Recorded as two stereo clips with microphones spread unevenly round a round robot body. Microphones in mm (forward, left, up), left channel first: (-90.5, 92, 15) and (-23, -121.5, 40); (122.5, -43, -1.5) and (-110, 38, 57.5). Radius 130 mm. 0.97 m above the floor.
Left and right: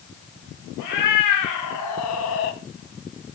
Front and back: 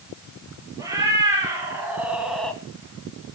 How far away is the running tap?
No running tap in this recording.